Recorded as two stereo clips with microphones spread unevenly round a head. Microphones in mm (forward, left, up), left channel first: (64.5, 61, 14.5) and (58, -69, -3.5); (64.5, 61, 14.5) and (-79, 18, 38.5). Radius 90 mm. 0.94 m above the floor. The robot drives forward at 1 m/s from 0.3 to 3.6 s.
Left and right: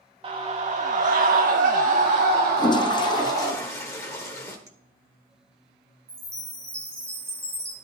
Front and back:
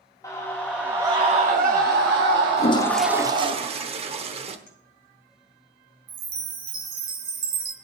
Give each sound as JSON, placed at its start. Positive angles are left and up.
{"t": 0.2, "sound": "a scream", "azimuth_deg": -50, "distance_m": 1.3}
{"t": 2.6, "sound": "a toilet flushing", "azimuth_deg": 50, "distance_m": 0.6}
{"t": 4.7, "sound": "a clink", "azimuth_deg": -25, "distance_m": 2.0}
{"t": 6.1, "sound": "a chime", "azimuth_deg": -170, "distance_m": 1.8}